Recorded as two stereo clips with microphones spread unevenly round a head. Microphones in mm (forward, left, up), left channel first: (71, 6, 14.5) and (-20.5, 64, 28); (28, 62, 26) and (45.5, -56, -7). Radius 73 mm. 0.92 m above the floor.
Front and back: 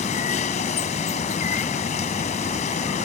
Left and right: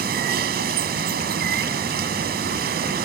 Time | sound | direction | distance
0.0 | running water | 80° right | ?